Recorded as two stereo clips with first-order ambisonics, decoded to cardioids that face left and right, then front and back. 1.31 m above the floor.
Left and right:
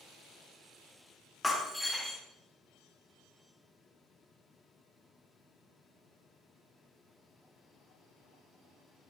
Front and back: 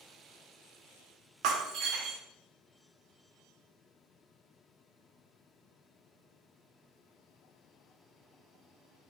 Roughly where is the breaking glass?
Behind.